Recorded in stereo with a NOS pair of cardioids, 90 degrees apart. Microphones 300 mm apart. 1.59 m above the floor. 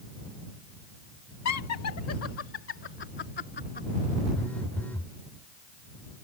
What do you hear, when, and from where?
1.4 s laughter: 65° left; by 3.9 s 30° left
4.3 s a phone buzzing: 5° left